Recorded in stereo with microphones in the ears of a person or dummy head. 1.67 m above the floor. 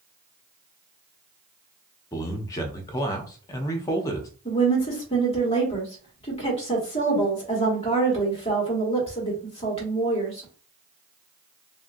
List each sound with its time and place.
2.1 s a man speaking: 15° left (ahead or behind), 0.6 m
4.5 s a woman speaking: 25° left (ahead or behind), 1.3 m